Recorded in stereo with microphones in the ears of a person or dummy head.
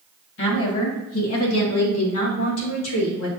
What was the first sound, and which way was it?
A woman speaking, 60° left (ahead or behind).